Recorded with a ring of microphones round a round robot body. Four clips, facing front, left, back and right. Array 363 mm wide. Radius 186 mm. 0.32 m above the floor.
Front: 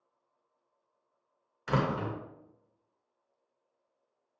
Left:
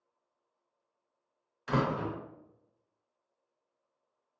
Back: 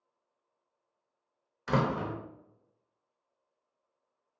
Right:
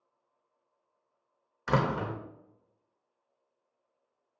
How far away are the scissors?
I don't hear scissors.